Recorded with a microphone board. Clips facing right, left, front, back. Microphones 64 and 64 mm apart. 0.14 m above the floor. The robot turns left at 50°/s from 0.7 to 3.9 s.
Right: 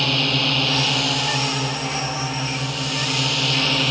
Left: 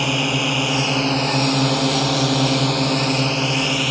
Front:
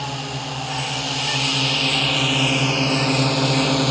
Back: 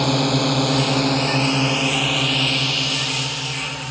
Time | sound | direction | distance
0.0 | a drone | 165° left | ?